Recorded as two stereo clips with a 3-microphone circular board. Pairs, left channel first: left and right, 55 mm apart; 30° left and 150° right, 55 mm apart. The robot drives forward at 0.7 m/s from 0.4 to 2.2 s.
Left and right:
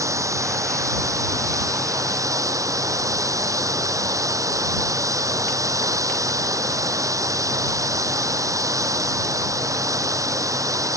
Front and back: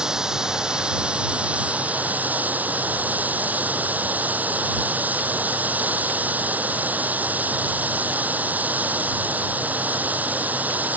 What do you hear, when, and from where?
0.0 s running water: 75° right; by 11.0 s 90° right